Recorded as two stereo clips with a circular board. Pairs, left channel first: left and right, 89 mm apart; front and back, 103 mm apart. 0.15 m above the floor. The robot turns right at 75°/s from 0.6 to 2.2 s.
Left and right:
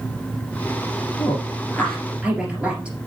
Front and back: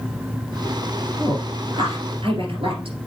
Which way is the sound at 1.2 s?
120° left.